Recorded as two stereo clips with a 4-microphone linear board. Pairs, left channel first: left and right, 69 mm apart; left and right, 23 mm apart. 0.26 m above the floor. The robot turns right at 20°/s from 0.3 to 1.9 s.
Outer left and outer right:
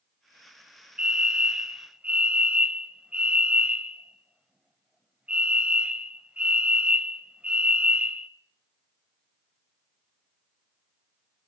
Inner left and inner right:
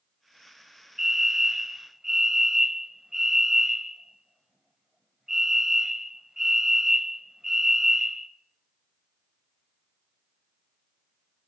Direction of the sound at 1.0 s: 15° right (ahead or behind).